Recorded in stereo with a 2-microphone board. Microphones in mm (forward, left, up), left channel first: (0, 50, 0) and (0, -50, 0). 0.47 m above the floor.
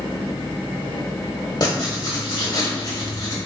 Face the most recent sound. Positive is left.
turn(degrees=40)  # may be behind; listen again after turning